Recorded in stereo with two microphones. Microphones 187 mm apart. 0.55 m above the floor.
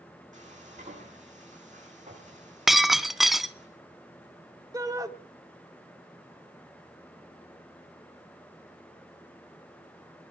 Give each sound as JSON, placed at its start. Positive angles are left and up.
{"t": 0.3, "sound": "frying", "side_deg": -40, "distance_m": 7.5}
{"t": 2.7, "sound": "breaking glass", "side_deg": 0, "distance_m": 0.8}
{"t": 4.7, "sound": "a shout", "side_deg": -20, "distance_m": 1.6}